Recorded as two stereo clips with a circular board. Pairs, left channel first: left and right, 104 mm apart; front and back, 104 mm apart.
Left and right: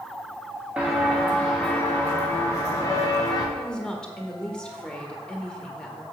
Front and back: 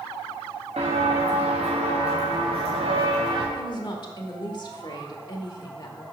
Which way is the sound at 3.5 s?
10° left.